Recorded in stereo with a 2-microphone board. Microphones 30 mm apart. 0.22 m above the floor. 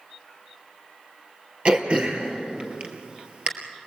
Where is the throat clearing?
40° right (ahead or behind), 2.5 m.